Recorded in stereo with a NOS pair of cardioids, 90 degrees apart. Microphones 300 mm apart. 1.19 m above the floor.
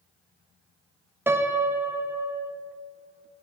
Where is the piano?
5° right, 0.9 m.